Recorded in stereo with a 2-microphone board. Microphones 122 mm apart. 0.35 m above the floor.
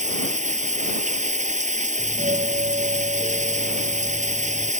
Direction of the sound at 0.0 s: 75° right (ahead or behind).